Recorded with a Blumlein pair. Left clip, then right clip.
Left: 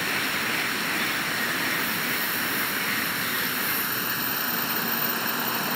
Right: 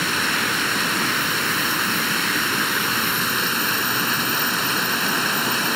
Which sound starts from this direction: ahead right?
Running water, at 0.0 s.